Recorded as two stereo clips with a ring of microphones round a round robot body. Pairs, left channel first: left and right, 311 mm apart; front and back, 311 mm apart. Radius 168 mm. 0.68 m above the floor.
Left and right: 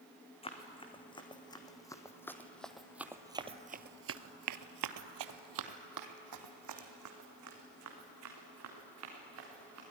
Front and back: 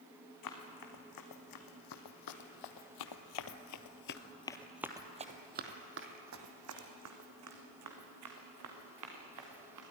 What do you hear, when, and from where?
0.4 s running footsteps: 20° left, 4 m; by 9.8 s 140° right, 5.5 m